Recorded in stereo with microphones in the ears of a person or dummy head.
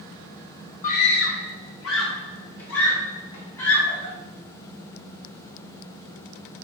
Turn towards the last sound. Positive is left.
turn(degrees=90)